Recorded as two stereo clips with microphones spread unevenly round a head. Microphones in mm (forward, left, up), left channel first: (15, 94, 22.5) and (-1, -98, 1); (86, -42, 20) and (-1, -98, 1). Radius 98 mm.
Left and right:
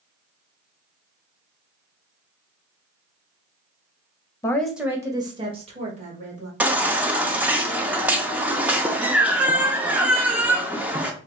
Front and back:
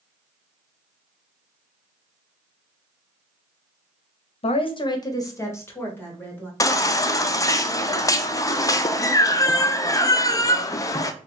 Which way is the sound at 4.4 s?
10° left.